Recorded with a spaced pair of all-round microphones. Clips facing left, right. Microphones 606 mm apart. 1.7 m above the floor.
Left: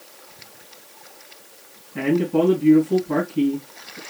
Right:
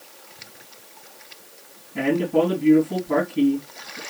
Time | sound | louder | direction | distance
1.9 | a man speaking | left 1 dB | 10° right (ahead or behind) | 4 m